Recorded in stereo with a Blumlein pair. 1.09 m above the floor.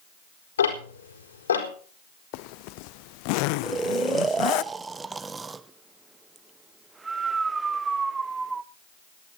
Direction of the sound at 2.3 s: 45° left.